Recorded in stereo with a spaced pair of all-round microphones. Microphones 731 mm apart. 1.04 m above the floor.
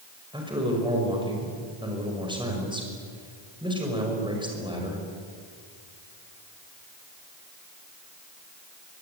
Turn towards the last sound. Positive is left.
turn(degrees=-5)  # may be behind; listen again after turning